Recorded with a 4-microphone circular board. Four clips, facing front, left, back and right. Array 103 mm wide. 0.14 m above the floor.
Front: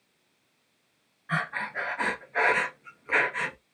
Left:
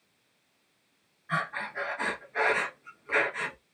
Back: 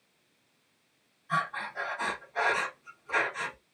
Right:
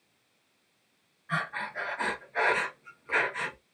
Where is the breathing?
Straight ahead, 0.9 m.